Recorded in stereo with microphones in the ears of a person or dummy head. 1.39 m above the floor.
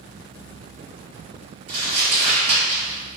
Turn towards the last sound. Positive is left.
turn(degrees=-30)  # may be behind; listen again after turning